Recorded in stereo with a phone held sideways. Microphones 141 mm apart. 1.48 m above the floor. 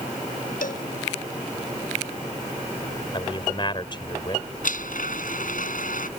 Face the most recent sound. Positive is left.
turn(degrees=70)  # may be behind; listen again after turning